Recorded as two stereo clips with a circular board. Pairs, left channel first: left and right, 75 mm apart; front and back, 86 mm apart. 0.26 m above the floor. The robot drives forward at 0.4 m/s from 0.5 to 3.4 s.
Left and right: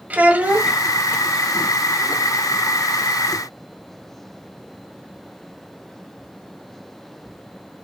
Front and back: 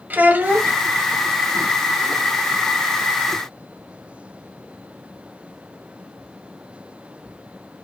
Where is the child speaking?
135° right, 0.6 m; by 0.8 s 145° right, 0.6 m.